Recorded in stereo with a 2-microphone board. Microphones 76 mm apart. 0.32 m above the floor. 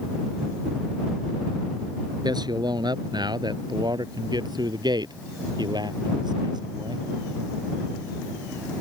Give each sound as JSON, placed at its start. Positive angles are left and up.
{"t": 2.2, "sound": "a man speaking", "side_deg": -70}